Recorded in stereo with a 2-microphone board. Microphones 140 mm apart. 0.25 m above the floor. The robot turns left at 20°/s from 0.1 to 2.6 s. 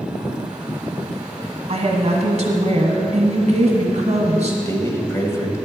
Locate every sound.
1.7 s a woman speaking: 50° right (ahead or behind), 1.7 m; by 4.6 s 55° right (ahead or behind), 1.7 m
4.7 s a man speaking: 20° left (ahead or behind), 1.1 m